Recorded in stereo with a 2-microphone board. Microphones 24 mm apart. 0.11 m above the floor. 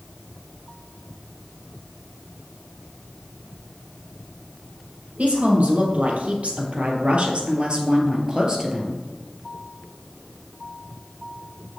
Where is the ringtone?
No ringtone in this recording.